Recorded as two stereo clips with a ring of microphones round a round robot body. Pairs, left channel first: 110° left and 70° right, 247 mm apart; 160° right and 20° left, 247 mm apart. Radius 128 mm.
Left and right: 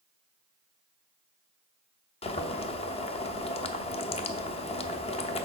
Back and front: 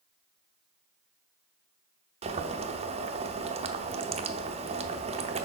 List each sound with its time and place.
2.2 s boiling: 65° left, 0.7 m